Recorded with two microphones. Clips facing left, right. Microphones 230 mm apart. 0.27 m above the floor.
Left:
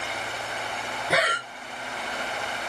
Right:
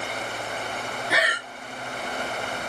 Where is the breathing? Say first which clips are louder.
Left 3 dB; 60° left (ahead or behind), 0.6 m.